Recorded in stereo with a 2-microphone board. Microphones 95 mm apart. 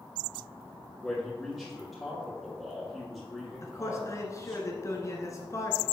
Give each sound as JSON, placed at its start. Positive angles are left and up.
{"t": 1.0, "sound": "a man speaking", "side_deg": 5, "distance_m": 3.5}
{"t": 3.6, "sound": "a man speaking", "side_deg": 35, "distance_m": 1.7}